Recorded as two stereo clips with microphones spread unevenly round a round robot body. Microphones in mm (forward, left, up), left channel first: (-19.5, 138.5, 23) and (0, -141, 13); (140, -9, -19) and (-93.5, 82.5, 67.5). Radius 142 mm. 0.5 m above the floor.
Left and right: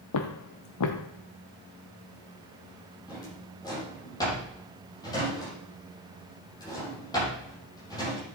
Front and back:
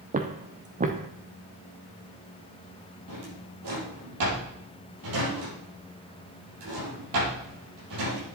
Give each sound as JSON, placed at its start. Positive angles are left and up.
{"t": 0.1, "sound": "footsteps", "azimuth_deg": 115, "distance_m": 1.0}
{"t": 3.1, "sound": "a drawer", "azimuth_deg": 170, "distance_m": 6.0}